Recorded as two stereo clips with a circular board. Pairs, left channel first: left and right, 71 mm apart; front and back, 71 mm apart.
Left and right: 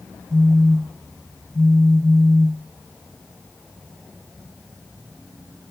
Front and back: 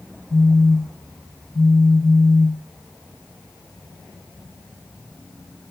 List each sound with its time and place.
0.3 s a phone buzzing: 15° left, 1.8 m